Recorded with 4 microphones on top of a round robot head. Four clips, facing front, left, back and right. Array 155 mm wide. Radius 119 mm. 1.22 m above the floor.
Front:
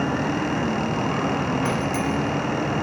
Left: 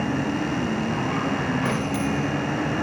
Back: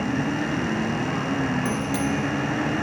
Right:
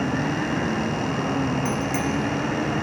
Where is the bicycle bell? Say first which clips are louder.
Even, front 1 dB; 115° right, 2.5 m.